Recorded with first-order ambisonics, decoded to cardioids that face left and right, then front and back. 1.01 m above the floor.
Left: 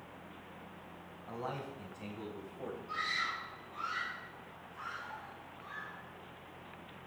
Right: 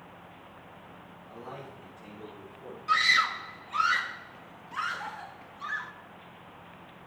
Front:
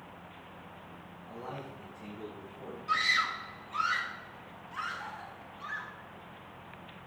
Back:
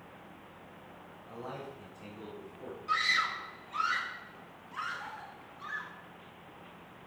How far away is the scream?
About 1.3 m.